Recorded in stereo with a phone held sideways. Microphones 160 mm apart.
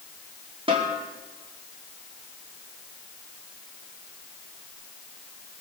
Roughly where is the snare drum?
Right.